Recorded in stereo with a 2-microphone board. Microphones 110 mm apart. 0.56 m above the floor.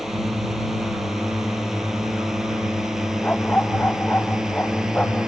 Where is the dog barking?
15° left (ahead or behind).